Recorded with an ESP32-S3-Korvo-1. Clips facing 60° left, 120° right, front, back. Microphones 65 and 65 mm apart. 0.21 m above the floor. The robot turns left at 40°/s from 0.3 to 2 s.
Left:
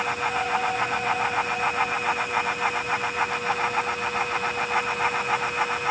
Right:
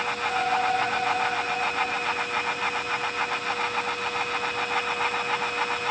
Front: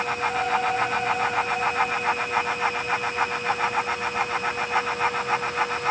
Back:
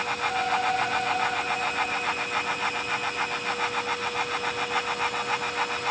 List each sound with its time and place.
Only background noise.